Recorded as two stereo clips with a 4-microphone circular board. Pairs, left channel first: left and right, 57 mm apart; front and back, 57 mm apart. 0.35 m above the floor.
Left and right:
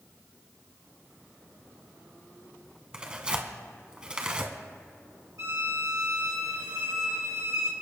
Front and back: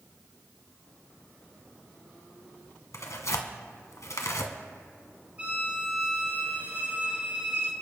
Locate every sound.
2.9 s tearing paper: 15° right, 1.5 m
5.4 s a violin: 115° right, 4 m